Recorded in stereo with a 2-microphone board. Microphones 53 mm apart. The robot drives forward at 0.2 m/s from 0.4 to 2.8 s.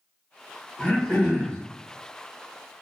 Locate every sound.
0.8 s throat clearing: 15° left (ahead or behind), 0.9 m